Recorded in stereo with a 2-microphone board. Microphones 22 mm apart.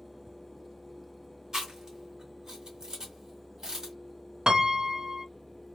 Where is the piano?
45° right (ahead or behind), 0.7 m.